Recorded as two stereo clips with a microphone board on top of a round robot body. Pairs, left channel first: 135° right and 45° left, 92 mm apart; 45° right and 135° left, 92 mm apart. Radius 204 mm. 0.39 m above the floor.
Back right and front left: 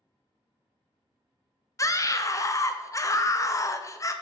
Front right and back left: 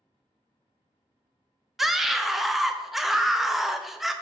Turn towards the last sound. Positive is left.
turn(degrees=-140)